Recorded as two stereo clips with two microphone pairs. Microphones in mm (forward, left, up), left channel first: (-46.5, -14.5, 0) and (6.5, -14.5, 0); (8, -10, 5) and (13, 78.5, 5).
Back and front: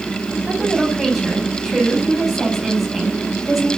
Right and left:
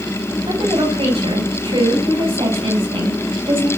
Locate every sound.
0.5 s a woman speaking: 90° left, 9 m